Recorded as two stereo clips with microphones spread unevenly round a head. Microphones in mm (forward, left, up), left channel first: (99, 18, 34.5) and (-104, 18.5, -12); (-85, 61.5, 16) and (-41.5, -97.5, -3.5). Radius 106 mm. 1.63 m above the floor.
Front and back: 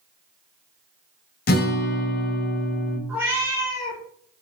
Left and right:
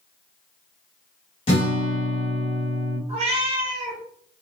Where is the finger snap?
No finger snap in this recording.